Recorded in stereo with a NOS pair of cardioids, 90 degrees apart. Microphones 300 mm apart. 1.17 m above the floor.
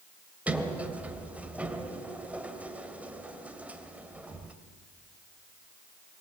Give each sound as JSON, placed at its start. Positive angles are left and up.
{"t": 0.5, "sound": "a sliding door", "azimuth_deg": -5, "distance_m": 2.5}